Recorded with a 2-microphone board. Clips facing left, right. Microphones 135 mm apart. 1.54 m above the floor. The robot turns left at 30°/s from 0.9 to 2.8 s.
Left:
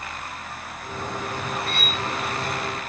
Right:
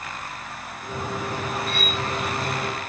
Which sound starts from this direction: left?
Cutlery clinking, at 1.7 s.